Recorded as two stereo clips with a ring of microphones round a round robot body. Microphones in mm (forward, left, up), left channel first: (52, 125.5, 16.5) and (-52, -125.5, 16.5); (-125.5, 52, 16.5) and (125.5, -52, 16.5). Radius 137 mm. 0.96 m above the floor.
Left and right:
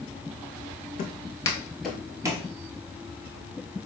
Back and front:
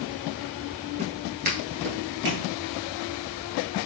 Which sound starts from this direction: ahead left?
Footsteps, at 1.0 s.